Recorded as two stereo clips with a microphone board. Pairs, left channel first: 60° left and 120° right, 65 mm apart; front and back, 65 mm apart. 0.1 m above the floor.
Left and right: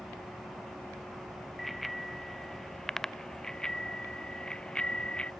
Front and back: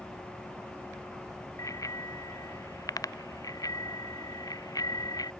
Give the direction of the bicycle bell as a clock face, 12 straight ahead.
1 o'clock.